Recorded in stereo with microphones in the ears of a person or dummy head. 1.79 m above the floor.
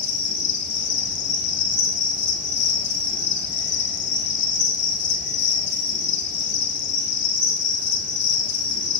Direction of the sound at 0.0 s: 55° left (ahead or behind).